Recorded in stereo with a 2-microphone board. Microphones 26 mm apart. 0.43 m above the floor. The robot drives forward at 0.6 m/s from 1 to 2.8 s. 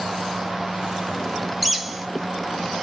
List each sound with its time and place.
1.6 s a bird: 5° right (ahead or behind), 0.6 m